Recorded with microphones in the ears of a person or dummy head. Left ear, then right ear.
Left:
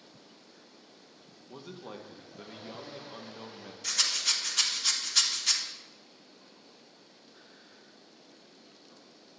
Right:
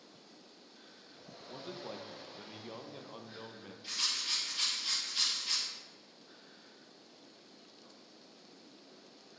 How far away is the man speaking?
About 0.7 m.